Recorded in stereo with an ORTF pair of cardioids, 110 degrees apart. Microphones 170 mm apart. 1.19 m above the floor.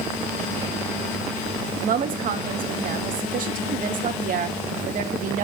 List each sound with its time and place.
1.8 s a woman speaking: 55° right, 2.5 m